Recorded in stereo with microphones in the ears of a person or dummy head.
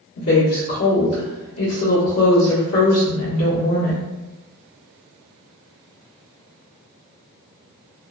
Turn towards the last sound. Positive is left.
turn(degrees=85)